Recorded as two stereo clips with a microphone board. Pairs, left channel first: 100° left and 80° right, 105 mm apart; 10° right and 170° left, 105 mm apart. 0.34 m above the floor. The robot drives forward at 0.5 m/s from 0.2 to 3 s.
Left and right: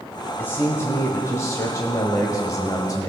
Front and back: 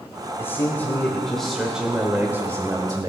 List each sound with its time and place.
0.4 s a man speaking: 45° left, 1.3 m; by 3.1 s 135° left, 1.3 m